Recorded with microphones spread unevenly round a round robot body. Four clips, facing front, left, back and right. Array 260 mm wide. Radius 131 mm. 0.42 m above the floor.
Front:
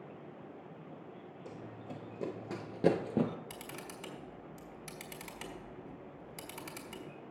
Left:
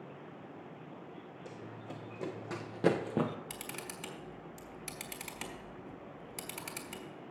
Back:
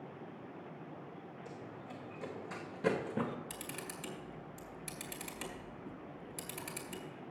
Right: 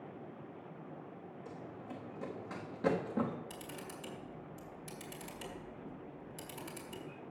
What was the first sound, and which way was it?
Running footsteps, 25° left.